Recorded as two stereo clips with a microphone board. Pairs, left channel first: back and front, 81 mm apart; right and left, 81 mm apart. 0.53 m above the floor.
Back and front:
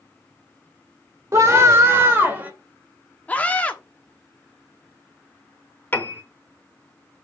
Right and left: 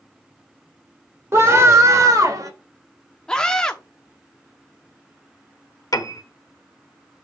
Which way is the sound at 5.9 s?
120° right.